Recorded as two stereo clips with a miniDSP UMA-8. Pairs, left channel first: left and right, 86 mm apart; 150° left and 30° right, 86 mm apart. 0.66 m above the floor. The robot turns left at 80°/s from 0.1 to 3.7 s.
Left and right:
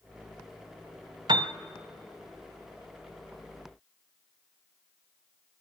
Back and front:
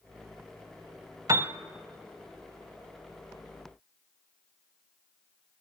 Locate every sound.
1.3 s a piano: 70° right, 1.0 m; by 1.5 s 90° right, 1.0 m